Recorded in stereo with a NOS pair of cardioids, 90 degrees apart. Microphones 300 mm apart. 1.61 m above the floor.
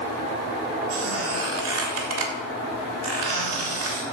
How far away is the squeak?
About 3 m.